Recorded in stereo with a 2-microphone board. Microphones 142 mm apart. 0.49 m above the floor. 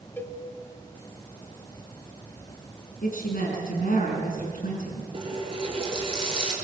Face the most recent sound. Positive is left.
turn(degrees=-40)  # may be behind; listen again after turning